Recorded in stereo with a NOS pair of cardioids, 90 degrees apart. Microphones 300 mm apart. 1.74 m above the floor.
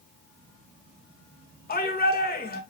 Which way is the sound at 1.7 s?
30° left.